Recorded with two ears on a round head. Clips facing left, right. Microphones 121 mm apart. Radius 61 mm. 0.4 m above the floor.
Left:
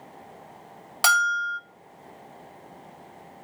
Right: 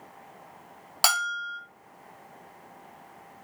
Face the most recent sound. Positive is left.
turn(degrees=-5)  # may be behind; listen again after turning